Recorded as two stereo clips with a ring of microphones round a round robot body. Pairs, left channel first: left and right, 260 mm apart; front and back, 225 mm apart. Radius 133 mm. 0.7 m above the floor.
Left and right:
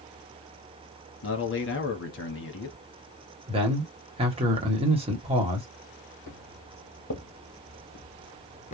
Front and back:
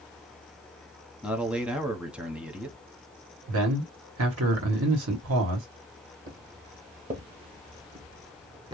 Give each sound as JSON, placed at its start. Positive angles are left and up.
{"t": 1.2, "sound": "a man speaking", "azimuth_deg": 95, "distance_m": 1.1}
{"t": 3.5, "sound": "a man speaking", "azimuth_deg": -160, "distance_m": 1.2}
{"t": 6.3, "sound": "footsteps", "azimuth_deg": 130, "distance_m": 1.8}